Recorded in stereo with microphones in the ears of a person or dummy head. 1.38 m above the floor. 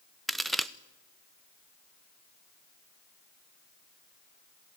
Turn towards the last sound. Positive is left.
turn(degrees=-5)  # may be behind; listen again after turning